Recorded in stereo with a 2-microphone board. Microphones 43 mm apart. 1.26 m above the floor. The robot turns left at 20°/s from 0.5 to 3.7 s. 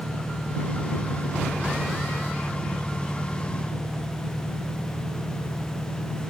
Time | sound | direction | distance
0.0 | an engine running | 80° right | ?